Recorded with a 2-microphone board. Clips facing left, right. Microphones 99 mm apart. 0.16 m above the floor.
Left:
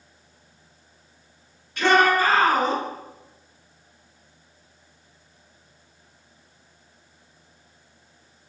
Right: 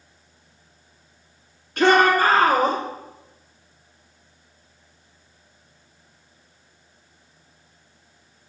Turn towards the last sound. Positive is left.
turn(degrees=-50)  # may be behind; listen again after turning